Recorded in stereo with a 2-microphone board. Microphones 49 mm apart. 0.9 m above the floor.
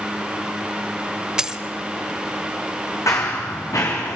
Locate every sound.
1.4 s a dropped coin: 15° right (ahead or behind), 0.8 m
3.1 s running footsteps: 70° left (ahead or behind), 3.5 m; by 4.2 s 80° left, 5 m